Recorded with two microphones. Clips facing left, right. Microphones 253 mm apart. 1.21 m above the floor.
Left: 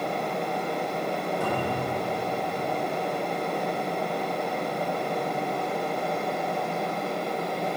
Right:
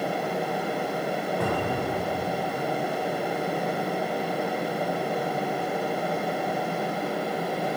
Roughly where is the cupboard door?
Right.